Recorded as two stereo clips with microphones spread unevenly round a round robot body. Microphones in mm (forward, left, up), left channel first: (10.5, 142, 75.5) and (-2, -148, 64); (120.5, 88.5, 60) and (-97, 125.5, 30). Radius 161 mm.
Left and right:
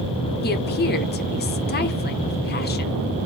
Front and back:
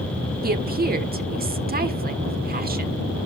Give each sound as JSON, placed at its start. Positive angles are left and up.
{"t": 0.4, "sound": "a woman speaking", "azimuth_deg": 140, "distance_m": 1.6}